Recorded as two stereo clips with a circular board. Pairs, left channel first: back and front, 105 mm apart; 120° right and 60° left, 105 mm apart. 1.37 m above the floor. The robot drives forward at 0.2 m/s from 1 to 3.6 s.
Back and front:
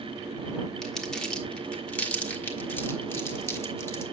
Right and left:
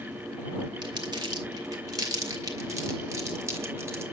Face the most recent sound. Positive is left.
turn(degrees=120)